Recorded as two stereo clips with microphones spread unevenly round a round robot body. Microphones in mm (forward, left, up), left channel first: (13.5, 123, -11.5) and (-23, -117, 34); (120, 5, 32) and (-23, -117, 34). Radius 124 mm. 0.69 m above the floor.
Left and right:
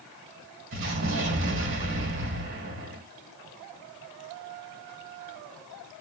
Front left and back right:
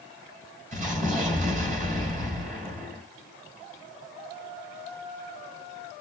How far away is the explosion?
About 1.8 m.